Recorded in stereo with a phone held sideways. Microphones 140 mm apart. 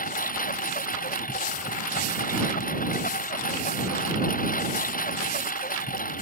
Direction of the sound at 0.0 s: 80° left.